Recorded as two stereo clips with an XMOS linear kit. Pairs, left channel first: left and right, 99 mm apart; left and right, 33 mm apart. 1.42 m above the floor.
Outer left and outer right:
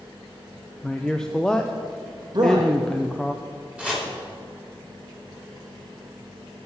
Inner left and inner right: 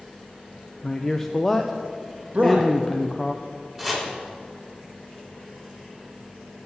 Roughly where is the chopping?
Centre.